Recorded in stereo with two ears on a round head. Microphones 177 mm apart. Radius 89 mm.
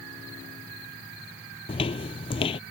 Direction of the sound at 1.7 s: 30° left (ahead or behind).